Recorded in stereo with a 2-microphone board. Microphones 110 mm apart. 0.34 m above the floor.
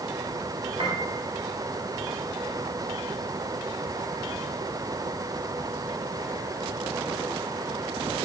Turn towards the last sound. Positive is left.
turn(degrees=-55)  # may be behind; listen again after turning